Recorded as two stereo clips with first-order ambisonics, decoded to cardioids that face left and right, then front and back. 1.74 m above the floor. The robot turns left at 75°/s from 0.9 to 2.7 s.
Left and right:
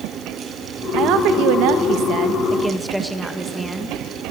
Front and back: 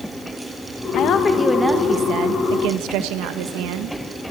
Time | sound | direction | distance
0.9 | a woman speaking | 45° right | 1.5 m